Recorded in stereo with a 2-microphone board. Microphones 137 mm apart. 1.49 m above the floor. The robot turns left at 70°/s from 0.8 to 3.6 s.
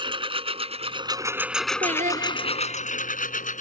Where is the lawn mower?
35° right (ahead or behind); by 3.6 s 65° left (ahead or behind).